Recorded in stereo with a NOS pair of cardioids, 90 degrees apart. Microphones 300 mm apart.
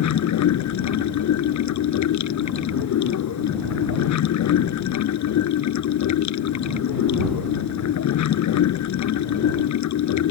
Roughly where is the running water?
Left.